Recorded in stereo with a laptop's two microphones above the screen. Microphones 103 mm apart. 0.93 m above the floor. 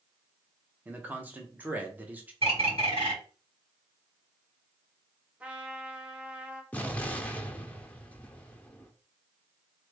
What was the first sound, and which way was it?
A man speaking, 15° right (ahead or behind).